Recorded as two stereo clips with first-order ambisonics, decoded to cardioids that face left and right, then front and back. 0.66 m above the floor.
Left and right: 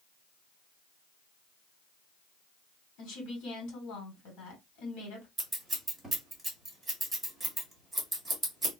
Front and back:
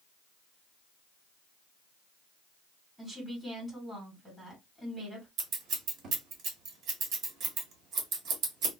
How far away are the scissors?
About 1.3 m.